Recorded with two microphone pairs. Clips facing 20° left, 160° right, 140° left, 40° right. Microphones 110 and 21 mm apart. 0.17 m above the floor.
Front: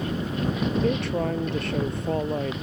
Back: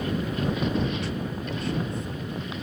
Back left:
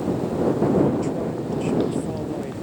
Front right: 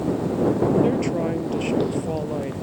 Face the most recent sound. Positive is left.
turn(degrees=30)